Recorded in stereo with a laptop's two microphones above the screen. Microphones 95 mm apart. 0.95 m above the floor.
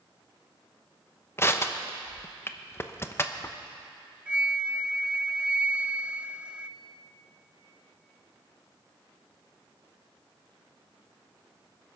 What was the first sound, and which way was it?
Crushing, 25° left (ahead or behind).